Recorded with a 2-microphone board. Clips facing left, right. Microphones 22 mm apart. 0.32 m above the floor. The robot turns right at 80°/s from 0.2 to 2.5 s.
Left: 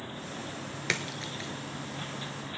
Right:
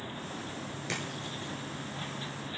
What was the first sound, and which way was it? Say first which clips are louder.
A splash: left 5 dB; 45° left (ahead or behind).